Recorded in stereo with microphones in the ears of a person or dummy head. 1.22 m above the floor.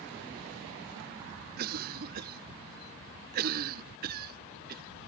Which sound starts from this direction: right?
A cough, at 1.6 s.